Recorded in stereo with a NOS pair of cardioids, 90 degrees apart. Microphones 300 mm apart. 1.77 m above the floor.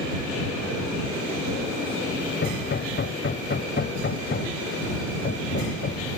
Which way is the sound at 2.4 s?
35° left.